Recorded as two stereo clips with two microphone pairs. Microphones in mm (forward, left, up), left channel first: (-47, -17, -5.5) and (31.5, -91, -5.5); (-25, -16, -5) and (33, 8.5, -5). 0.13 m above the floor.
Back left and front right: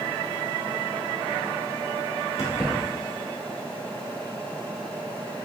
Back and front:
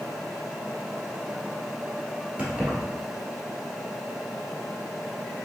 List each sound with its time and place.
2.4 s keys jangling: 85° left, 1.5 m